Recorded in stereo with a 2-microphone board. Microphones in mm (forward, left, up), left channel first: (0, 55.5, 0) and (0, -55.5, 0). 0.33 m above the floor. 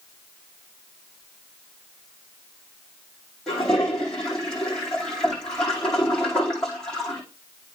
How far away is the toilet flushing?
About 7.5 m.